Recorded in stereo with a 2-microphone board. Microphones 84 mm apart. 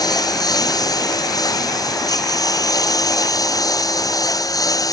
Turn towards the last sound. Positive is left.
turn(degrees=45)  # may be behind; listen again after turning